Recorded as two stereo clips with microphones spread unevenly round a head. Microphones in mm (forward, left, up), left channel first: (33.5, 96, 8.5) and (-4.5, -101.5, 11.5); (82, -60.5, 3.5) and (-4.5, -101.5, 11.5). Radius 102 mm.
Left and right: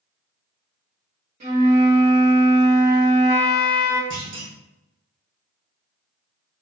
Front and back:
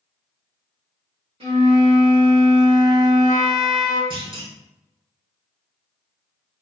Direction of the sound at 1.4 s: 155° right.